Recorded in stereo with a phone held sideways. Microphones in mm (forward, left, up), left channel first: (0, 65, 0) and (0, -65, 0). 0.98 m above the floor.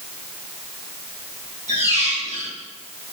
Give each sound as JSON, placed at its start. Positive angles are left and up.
{"t": 1.7, "sound": "a squeak", "side_deg": -65, "distance_m": 3.0}